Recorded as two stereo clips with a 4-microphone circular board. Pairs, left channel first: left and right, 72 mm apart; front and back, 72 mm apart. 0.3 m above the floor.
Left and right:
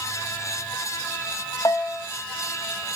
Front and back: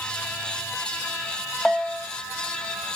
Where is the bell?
85° left, 0.8 m.